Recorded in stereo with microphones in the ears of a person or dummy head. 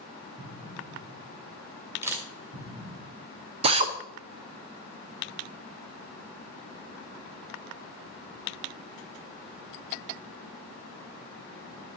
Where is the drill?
35° right (ahead or behind), 1.0 m.